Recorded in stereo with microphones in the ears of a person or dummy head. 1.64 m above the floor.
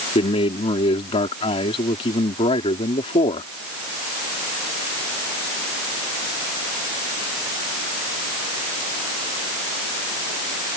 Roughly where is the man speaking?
Left.